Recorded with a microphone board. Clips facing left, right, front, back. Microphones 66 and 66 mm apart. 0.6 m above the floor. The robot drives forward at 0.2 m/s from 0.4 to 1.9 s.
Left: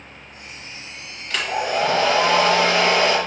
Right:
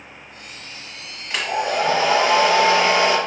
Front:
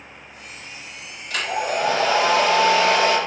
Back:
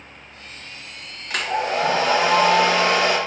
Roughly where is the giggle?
No giggle in this recording.